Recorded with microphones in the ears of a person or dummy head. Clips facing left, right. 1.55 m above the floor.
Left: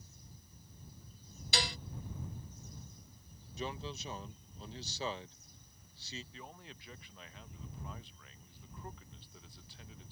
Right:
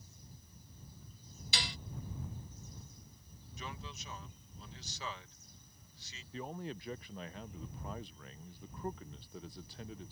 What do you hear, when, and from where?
1.5 s dishes clattering: 35° left (ahead or behind)
3.6 s a man speaking: 30° left (ahead or behind)
6.3 s a man speaking: 40° right (ahead or behind)